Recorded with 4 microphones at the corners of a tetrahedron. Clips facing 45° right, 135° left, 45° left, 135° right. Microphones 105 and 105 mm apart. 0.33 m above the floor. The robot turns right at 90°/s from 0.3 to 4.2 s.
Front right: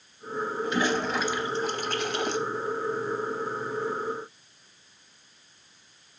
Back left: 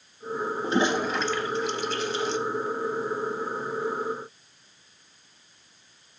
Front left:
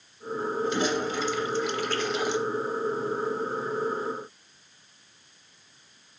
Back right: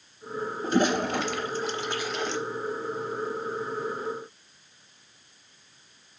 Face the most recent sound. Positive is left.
turn(degrees=140)